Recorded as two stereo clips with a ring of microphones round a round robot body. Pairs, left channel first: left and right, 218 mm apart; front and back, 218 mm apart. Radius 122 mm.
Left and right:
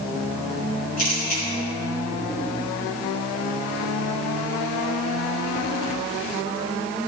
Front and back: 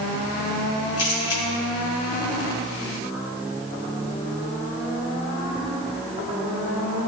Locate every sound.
1.0 s a camera shutter: 35° left, 1.8 m